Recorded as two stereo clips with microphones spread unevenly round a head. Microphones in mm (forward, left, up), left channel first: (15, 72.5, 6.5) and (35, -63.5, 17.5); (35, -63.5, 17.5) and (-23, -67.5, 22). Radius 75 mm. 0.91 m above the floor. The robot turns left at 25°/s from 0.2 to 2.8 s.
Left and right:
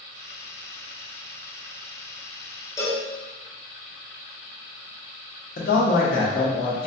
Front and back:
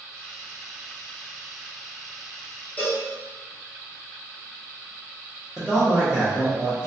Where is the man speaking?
90° left, 0.7 m.